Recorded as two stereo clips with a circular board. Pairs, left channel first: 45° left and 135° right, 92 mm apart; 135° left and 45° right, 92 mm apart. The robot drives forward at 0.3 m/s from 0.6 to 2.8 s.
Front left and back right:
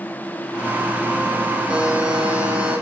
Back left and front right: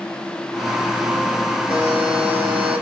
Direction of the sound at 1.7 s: 55° right.